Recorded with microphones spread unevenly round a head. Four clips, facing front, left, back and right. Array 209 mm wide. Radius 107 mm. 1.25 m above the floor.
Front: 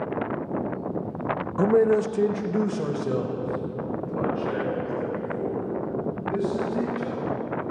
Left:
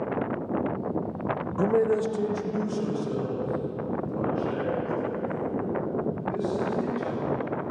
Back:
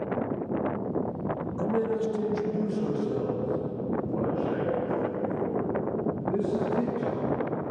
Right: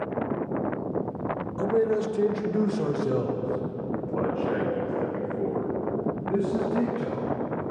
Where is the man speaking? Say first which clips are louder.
Left 1 dB, front 8 dB; 25° left, 0.8 m; by 7.7 s 60° right, 6 m.